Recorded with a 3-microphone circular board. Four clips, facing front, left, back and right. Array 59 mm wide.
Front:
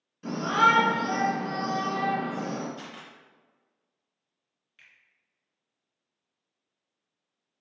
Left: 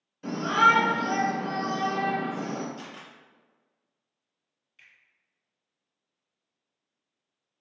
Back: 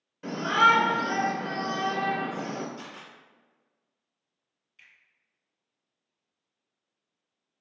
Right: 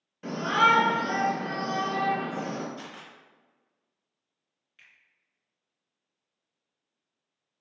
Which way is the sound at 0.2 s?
130° right.